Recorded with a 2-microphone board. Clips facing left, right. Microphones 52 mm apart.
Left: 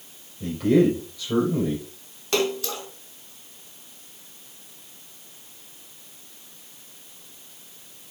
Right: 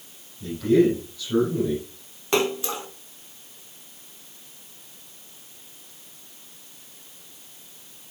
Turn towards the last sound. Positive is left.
turn(degrees=-20)  # may be behind; listen again after turning